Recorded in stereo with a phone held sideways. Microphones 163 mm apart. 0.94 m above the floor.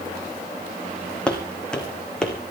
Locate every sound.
1.3 s footsteps: 5° left (ahead or behind), 2.5 m